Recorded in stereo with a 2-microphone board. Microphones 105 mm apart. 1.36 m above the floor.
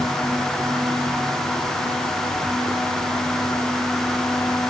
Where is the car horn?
No car horn in this recording.